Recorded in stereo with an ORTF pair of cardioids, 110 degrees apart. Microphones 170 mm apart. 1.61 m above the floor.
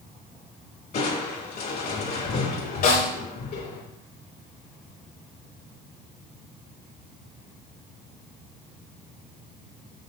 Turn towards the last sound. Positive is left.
turn(degrees=60)